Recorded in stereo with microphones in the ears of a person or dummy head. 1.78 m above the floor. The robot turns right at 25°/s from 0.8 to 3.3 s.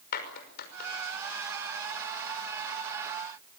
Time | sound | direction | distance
0.1 | a clap | 55° left (ahead or behind) | 6 m